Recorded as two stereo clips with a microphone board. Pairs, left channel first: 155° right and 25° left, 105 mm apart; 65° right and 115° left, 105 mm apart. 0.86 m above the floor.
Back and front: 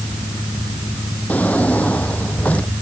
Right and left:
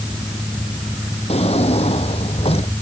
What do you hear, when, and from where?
1.3 s a drawer: 80° right